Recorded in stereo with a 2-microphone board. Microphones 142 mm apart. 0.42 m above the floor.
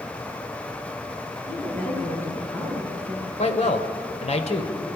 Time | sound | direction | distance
1.5 | a woman speaking | 15° left (ahead or behind) | 6.5 m
3.4 | a man speaking | 50° left (ahead or behind) | 1.8 m